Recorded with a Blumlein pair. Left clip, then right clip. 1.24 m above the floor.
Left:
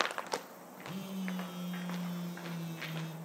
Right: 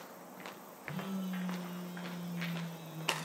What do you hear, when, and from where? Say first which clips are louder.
0.8 s a phone buzzing: right 1 dB; 15° left, 0.6 m